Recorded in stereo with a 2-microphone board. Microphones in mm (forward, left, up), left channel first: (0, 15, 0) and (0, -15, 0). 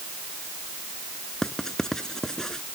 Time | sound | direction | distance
1.4 | writing | 20° left (ahead or behind) | ?